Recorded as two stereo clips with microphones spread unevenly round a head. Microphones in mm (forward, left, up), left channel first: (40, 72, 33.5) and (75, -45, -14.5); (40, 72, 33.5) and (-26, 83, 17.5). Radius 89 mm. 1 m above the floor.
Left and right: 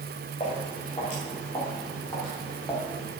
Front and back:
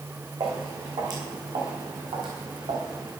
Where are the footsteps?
155° left, 4 m; by 3.1 s straight behind, 3 m.